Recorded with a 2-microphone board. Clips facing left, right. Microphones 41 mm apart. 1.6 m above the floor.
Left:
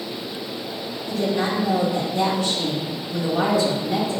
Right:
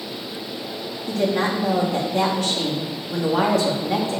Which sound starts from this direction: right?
A woman speaking, at 1.1 s.